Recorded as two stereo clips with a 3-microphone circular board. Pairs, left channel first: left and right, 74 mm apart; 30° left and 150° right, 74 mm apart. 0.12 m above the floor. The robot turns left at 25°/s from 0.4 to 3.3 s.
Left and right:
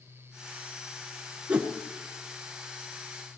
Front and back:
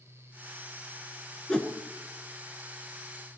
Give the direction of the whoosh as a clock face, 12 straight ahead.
1 o'clock.